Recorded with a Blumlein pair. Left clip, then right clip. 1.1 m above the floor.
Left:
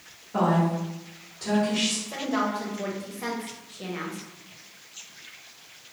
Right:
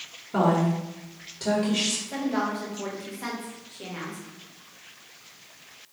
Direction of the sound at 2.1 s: 5° left.